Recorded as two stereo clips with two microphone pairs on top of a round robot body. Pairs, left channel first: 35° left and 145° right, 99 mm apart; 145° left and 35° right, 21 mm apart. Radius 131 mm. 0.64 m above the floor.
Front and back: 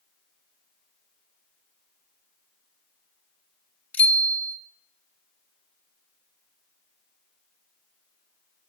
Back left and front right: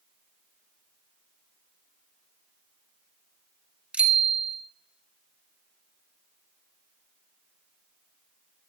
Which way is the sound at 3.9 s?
40° right.